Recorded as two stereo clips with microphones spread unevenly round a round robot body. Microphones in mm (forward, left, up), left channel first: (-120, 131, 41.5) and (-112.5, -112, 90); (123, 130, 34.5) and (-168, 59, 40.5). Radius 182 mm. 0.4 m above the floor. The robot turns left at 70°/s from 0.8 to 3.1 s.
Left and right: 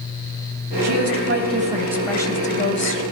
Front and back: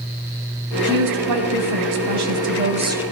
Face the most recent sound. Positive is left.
turn(degrees=105)